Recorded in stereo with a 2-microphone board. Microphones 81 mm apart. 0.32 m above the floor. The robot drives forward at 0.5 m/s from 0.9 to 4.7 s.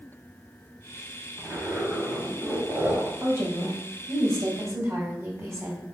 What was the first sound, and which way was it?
A zipper, 15° right (ahead or behind).